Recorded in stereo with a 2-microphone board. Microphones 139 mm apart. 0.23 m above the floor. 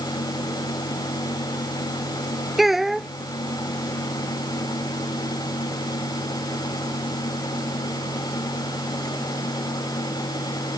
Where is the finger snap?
No finger snap in this recording.